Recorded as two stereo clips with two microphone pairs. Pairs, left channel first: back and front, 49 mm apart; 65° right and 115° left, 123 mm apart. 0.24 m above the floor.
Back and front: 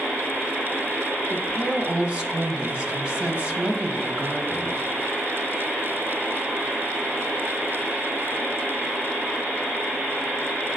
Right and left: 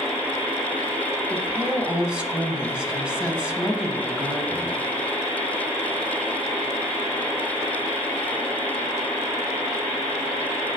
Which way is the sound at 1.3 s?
40° left.